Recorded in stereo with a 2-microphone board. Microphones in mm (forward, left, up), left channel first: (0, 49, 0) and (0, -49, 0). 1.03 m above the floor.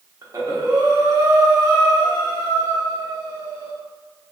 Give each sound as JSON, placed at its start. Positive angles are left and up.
{"t": 0.2, "sound": "breathing", "side_deg": -35, "distance_m": 1.0}